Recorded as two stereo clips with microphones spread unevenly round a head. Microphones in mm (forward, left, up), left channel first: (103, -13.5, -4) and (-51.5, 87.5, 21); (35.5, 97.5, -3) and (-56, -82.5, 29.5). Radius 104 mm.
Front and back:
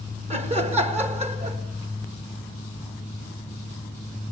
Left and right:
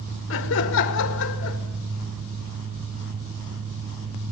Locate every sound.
0.3 s laughter: 90° left, 1.6 m